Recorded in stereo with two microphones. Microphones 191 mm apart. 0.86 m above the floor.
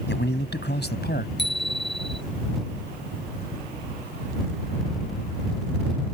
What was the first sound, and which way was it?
A man speaking, 70° left (ahead or behind).